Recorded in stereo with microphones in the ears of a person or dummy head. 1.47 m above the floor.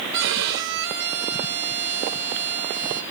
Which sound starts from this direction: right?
A violin, at 0.1 s.